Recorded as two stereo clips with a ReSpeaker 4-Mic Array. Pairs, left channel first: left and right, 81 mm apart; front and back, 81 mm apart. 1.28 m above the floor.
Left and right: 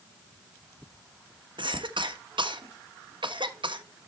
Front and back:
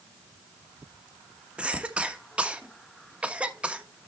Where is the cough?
105° right, 1.4 m.